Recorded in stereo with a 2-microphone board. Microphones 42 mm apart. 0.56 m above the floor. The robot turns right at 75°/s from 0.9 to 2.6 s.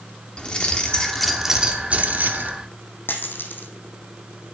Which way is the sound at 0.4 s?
150° left.